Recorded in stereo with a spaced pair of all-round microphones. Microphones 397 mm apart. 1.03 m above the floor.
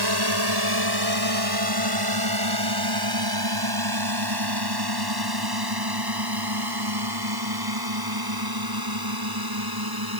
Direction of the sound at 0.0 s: 65° right (ahead or behind).